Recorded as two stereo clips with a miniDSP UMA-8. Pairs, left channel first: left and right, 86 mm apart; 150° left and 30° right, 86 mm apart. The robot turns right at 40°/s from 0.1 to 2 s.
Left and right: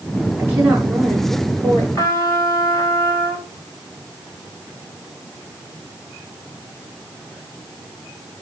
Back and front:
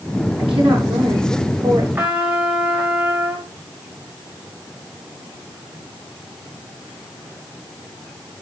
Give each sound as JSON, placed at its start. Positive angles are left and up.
{"t": 0.4, "sound": "a woman speaking", "azimuth_deg": -30, "distance_m": 9.5}
{"t": 1.9, "sound": "a trumpet", "azimuth_deg": 40, "distance_m": 3.5}